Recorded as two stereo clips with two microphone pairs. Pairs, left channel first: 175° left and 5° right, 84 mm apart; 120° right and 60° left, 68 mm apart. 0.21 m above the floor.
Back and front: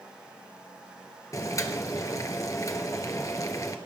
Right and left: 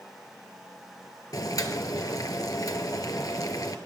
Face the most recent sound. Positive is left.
turn(degrees=-140)